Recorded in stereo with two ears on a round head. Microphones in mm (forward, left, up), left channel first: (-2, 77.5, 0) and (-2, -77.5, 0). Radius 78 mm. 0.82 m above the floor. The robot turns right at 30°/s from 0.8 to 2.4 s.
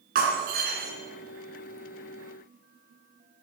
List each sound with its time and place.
0.1 s breaking glass: 60° right (ahead or behind), 2.5 m; by 0.9 s 65° right (ahead or behind), 2.5 m